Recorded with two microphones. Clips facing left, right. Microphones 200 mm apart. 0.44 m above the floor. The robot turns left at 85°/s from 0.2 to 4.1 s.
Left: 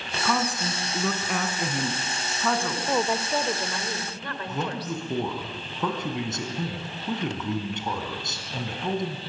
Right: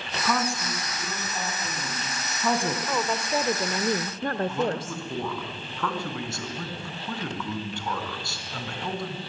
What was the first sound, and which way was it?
A woman speaking, 175° right.